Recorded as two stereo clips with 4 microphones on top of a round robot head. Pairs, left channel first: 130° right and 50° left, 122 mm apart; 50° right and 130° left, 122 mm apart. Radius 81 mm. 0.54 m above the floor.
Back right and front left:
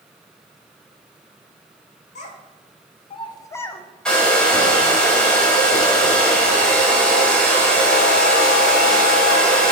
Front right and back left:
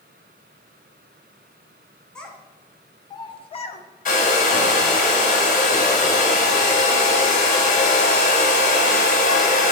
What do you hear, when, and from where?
2.1 s a child speaking: 135° right, 1.8 m; by 3.8 s 45° right, 1.2 m
4.0 s a hair dryer: 45° right, 2 m